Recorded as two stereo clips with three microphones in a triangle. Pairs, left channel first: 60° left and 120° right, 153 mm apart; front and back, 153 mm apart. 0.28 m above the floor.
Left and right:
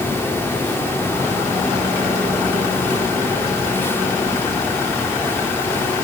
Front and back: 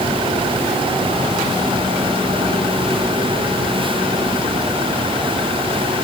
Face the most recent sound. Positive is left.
No sound to turn to.